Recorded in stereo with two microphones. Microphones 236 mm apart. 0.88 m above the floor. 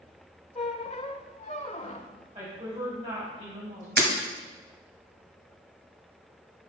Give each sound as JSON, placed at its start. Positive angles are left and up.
{"t": 0.6, "sound": "a squeak", "side_deg": 30, "distance_m": 0.7}
{"t": 2.4, "sound": "a woman speaking", "side_deg": -25, "distance_m": 4.5}
{"t": 4.0, "sound": "breaking glass", "side_deg": -45, "distance_m": 1.4}